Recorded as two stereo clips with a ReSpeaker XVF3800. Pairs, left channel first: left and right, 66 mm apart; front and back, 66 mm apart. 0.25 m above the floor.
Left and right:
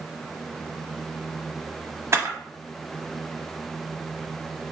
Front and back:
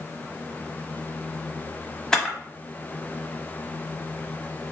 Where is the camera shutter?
75° right, 0.8 m.